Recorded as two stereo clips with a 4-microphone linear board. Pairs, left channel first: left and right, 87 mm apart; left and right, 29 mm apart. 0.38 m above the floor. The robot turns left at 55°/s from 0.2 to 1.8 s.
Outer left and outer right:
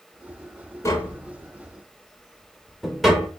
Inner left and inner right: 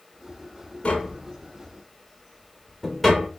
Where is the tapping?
35° left (ahead or behind), 0.9 m; by 3.3 s 5° right (ahead or behind), 0.9 m.